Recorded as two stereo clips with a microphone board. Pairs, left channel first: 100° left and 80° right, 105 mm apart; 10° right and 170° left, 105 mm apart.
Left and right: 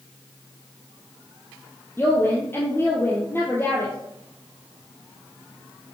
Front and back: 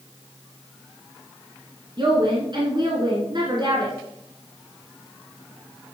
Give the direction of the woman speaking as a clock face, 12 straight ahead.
7 o'clock.